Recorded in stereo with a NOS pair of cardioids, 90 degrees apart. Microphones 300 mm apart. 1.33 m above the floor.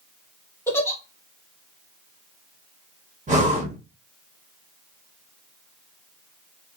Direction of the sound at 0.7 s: 10° left.